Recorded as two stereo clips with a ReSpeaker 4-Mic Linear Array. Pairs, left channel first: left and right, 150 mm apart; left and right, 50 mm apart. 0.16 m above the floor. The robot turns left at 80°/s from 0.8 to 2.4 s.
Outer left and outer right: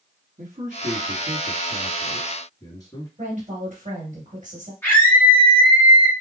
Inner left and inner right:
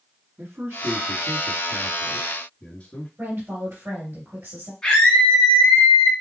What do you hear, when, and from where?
0.4 s a man speaking: 55° right (ahead or behind), 2 m; by 3.1 s 25° left (ahead or behind), 2 m
3.2 s a woman speaking: 50° right (ahead or behind), 2.5 m
4.8 s a scream: 15° left (ahead or behind), 1.5 m